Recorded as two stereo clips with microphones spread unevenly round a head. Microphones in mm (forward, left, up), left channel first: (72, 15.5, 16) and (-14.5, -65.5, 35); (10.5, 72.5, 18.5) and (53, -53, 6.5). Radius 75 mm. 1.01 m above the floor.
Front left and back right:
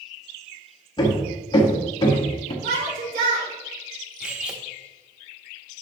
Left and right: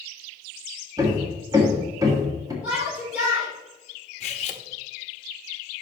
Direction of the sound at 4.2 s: 145° left.